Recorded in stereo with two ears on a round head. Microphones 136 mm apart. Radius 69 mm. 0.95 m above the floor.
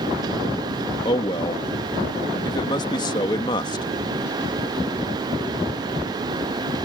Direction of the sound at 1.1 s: 25° left (ahead or behind).